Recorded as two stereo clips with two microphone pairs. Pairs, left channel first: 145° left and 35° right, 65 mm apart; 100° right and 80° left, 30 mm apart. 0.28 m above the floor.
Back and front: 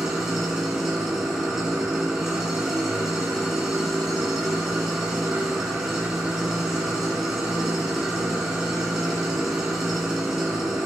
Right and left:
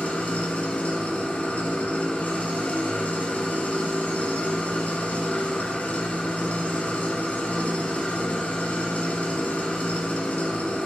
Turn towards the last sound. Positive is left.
turn(degrees=-120)